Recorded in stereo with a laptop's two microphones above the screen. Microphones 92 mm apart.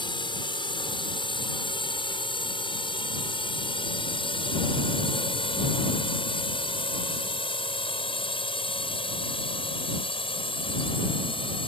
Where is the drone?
65° left (ahead or behind); by 11.7 s 75° left (ahead or behind).